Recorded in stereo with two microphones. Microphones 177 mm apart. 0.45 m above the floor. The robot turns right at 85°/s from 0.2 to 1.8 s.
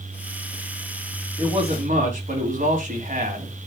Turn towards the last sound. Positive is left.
turn(degrees=-130)